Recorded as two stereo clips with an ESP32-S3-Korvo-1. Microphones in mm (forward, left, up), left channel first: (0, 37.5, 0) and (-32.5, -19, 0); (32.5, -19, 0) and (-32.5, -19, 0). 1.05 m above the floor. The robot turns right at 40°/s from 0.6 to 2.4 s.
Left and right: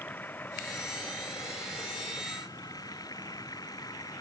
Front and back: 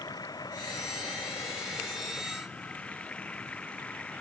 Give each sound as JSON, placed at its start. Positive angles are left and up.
{"t": 0.0, "sound": "running water", "azimuth_deg": 0}